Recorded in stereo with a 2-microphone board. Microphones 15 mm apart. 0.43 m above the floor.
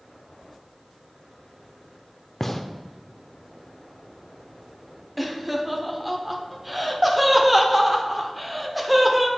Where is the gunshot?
20° left (ahead or behind), 0.5 m.